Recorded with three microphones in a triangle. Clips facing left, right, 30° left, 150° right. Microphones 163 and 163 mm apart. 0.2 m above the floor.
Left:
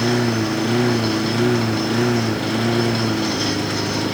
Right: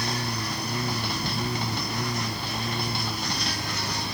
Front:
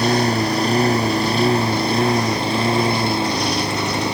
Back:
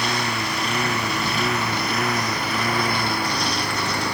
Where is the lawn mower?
85° left; by 4.1 s 100° left.